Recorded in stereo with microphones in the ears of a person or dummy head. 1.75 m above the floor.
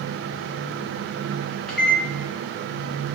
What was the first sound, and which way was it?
A microwave, centre (ahead or behind).